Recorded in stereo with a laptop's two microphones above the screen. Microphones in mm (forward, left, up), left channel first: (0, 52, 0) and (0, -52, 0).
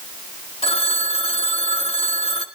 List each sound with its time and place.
0.6 s a phone ringing: 70° left (ahead or behind), 1.5 m